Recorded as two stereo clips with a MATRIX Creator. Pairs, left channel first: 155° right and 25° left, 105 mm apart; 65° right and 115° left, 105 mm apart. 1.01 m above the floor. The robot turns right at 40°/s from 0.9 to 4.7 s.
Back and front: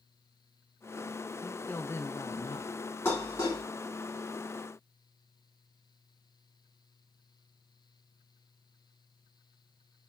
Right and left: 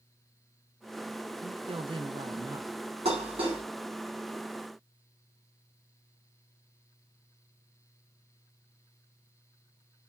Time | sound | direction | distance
1.4 | a woman speaking | 120° left | 0.7 m
3.0 | dishes clattering | 130° left | 2 m